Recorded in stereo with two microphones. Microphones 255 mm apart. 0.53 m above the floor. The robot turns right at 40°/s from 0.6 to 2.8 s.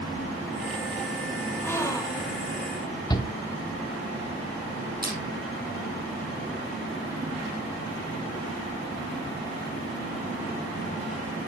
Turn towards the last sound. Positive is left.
turn(degrees=-35)  # may be behind; listen again after turning